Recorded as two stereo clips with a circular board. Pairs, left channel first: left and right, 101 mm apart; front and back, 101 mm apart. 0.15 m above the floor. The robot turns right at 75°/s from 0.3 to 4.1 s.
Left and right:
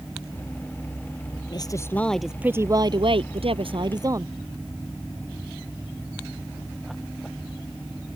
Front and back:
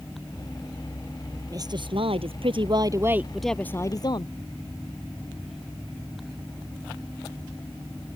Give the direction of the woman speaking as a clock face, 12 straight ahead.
8 o'clock.